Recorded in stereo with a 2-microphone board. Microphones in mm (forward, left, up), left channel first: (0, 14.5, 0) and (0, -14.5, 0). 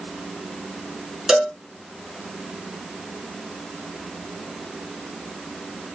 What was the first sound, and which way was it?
A cowbell, 20° right (ahead or behind).